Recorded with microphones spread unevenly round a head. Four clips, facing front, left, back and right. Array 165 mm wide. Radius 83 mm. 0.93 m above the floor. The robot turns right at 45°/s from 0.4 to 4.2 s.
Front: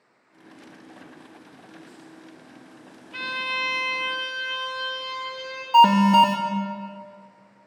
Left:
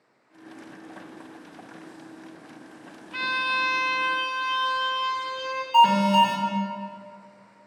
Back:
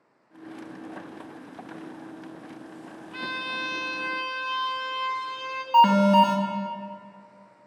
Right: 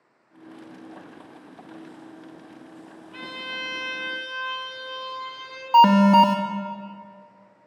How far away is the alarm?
About 1.4 m.